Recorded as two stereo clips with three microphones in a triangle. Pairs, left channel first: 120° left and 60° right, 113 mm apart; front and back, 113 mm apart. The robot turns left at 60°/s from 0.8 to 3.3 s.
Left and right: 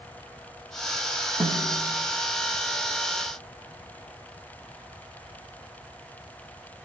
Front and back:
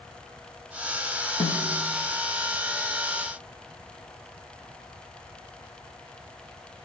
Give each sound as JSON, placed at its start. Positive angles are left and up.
{"t": 1.4, "sound": "a snare drum", "azimuth_deg": -20, "distance_m": 7.5}